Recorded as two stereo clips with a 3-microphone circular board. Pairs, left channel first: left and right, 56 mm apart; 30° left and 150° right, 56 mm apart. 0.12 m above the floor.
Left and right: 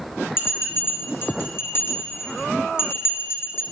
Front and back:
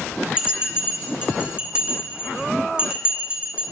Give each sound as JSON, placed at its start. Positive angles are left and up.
{"t": 0.4, "sound": "a bell", "azimuth_deg": 135, "distance_m": 1.1}